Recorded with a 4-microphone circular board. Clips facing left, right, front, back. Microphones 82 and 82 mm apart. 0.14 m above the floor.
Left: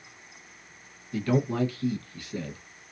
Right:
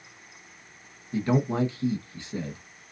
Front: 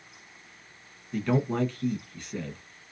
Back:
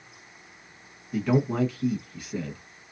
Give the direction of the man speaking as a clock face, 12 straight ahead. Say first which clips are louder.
Right 1 dB, back 2 dB; 3 o'clock.